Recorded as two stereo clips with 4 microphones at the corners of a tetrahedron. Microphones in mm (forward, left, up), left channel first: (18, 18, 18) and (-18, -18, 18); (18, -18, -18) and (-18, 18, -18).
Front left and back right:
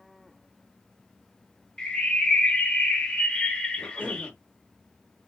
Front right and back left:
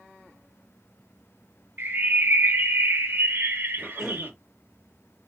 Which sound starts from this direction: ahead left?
A cough, at 3.8 s.